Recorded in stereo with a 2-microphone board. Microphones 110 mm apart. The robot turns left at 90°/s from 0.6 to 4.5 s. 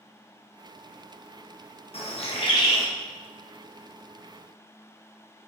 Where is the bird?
105° left, 0.7 m; by 2.9 s 20° left, 0.7 m.